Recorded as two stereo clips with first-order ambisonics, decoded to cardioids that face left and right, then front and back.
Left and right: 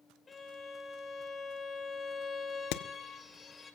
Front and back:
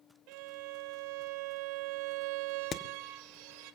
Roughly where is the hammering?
Ahead left.